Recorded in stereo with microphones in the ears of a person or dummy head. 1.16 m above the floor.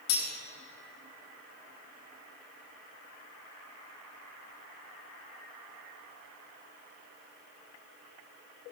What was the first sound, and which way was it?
Cutlery clinking, 80° left.